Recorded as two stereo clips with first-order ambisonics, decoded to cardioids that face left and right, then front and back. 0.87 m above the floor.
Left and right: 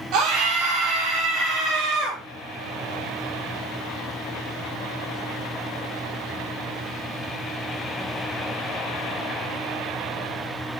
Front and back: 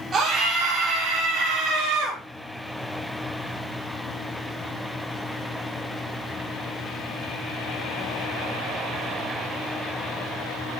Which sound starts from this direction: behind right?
A scream, at 0.1 s.